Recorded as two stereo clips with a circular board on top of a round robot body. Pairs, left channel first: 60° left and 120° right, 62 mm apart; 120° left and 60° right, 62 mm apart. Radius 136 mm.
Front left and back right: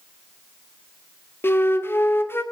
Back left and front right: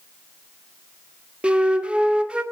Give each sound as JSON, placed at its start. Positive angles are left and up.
{"t": 1.4, "sound": "a flute", "azimuth_deg": 10, "distance_m": 2.0}